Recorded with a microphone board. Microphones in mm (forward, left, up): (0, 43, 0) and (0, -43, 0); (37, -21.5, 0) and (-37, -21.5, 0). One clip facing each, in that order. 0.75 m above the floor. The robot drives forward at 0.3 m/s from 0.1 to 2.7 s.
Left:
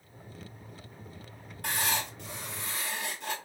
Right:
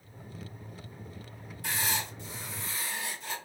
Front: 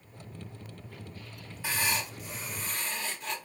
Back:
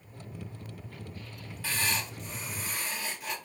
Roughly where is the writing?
Left.